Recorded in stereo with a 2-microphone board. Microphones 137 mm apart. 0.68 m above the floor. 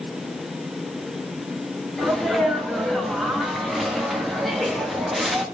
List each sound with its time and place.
2.0 s a sneeze: centre (ahead or behind), 0.7 m